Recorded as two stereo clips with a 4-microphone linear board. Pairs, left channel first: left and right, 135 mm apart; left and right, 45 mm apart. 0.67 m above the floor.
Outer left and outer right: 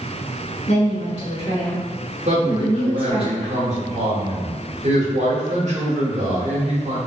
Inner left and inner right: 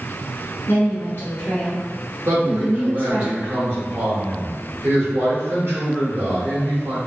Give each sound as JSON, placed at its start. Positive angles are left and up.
{"t": 0.7, "sound": "a woman speaking", "side_deg": 45, "distance_m": 1.3}
{"t": 2.2, "sound": "a man speaking", "side_deg": -55, "distance_m": 1.3}